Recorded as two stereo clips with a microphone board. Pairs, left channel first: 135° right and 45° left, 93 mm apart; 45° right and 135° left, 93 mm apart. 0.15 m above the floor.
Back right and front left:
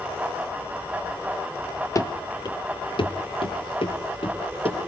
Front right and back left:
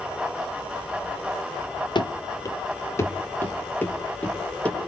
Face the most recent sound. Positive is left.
turn(degrees=-120)